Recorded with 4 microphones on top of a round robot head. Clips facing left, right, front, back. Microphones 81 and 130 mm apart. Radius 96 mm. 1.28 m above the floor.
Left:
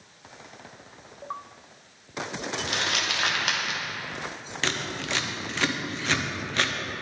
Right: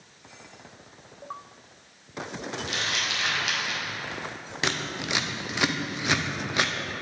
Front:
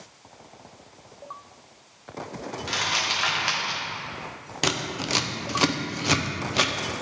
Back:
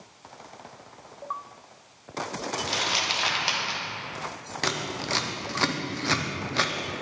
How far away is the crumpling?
About 1.2 m.